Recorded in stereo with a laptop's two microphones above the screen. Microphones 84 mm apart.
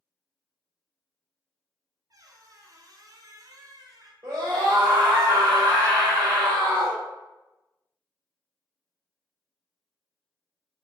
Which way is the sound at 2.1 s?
45° right (ahead or behind).